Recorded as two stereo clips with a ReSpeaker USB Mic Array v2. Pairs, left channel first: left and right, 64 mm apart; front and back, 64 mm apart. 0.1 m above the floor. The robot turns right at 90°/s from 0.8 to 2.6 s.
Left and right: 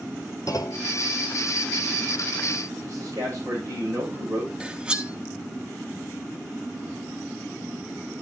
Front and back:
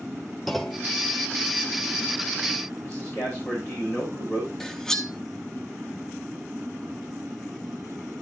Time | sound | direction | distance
0.5 | a clunk | 90° left | 0.7 m
2.8 | a man speaking | 50° right | 8 m
4.6 | cutlery clinking | 60° right | 0.7 m